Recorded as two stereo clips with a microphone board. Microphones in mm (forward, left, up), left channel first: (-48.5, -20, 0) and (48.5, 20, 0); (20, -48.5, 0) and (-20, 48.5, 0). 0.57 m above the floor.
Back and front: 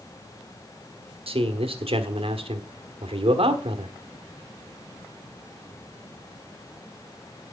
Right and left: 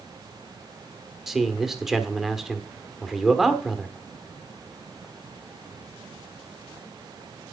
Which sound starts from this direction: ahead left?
A man speaking, at 1.3 s.